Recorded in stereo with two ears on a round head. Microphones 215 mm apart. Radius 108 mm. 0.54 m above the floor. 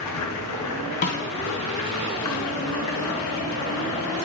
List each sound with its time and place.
0.0 s running water: 85° left, 3.5 m
1.0 s a snare drum: 35° left (ahead or behind), 3 m